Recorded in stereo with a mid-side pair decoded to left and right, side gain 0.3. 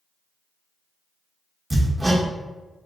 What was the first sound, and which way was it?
Hammering, 25° right.